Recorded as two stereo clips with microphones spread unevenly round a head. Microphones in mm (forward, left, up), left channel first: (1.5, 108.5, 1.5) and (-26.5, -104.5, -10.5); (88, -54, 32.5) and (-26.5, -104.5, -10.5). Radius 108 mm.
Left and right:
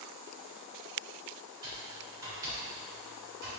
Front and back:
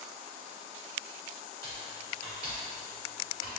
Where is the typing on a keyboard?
170° right, 1.7 m.